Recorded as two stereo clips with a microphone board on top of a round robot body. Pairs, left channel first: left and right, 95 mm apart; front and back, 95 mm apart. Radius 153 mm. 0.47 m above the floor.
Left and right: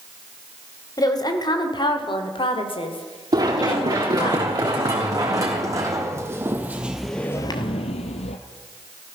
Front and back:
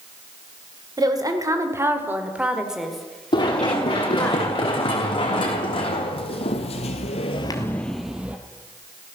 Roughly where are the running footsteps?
Ahead right.